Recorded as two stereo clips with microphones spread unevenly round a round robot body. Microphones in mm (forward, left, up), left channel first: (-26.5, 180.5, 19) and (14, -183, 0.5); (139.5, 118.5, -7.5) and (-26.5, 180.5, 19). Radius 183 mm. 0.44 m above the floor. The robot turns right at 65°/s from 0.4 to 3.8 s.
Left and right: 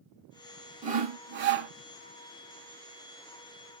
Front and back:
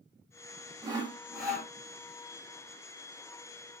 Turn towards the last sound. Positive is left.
turn(degrees=60)